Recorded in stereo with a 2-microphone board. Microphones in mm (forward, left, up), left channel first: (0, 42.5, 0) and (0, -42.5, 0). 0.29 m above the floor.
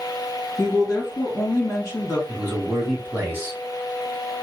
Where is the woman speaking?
35° left (ahead or behind), 1.8 m.